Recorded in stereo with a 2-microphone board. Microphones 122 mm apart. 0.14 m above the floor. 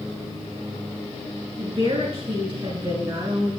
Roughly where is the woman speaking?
Right.